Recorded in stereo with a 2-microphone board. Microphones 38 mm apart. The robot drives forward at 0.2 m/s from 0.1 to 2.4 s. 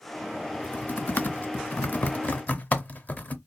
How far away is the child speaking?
I don't hear a child speaking.